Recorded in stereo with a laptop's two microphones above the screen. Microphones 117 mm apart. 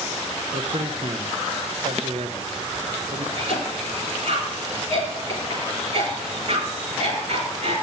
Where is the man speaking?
60° right (ahead or behind), 0.8 m.